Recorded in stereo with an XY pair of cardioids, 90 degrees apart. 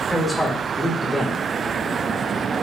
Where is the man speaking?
15° left, 3 m.